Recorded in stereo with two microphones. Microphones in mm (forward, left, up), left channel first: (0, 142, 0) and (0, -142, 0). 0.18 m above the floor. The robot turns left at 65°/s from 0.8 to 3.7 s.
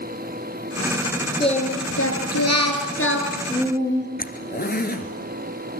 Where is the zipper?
35° left (ahead or behind), 1.9 m.